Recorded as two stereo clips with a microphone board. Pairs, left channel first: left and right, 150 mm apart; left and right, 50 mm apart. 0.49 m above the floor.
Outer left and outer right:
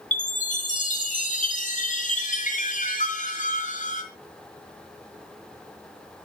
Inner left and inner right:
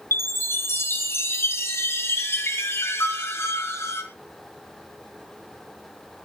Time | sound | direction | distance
0.1 | a chime | 55° left (ahead or behind) | 4 m